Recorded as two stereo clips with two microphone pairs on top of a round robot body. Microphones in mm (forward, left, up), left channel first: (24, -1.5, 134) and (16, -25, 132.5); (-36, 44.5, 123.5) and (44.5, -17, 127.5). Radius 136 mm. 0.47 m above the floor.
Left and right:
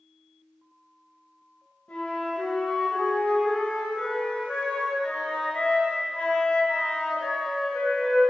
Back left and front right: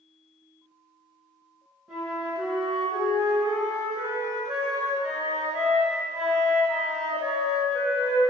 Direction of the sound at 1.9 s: 45° left.